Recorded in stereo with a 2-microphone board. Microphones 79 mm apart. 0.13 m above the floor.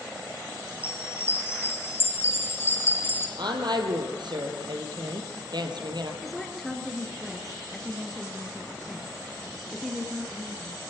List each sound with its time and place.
0.7 s a chime: 30° left (ahead or behind), 2.5 m
3.4 s a woman speaking: 70° right (ahead or behind), 3 m
6.2 s a woman speaking: centre (ahead or behind), 2.5 m